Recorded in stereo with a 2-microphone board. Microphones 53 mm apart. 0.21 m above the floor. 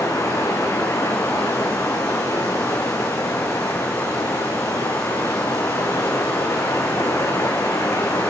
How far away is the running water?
About 2 m.